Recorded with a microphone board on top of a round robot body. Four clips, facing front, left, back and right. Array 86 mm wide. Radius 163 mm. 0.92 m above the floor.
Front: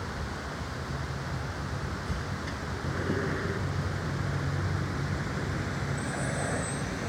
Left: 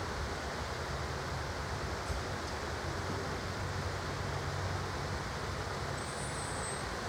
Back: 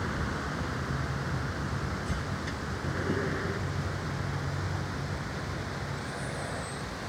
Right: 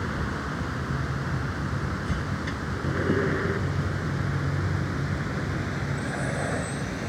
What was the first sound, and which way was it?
A vehicle, 110° right.